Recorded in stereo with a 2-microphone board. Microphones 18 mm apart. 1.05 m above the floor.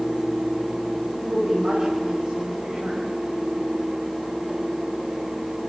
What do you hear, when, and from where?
1.2 s a woman speaking: 80° right, 5 m; by 3.1 s 85° right, 5.5 m